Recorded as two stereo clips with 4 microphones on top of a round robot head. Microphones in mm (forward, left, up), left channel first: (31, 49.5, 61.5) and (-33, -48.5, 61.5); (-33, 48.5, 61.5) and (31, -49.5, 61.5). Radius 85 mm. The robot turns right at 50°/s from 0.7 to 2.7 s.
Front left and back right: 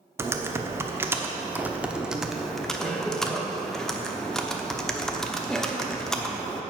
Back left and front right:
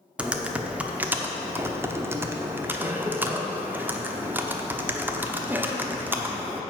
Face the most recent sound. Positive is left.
turn(degrees=-20)